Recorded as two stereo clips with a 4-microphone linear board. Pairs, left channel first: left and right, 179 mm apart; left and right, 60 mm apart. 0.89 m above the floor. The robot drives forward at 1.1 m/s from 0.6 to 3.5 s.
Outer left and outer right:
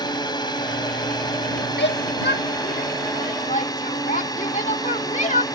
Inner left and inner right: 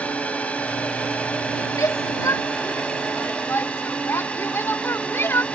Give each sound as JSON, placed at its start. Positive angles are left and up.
{"t": 0.0, "sound": "a drone", "side_deg": 25}
{"t": 1.8, "sound": "a shout", "side_deg": 75}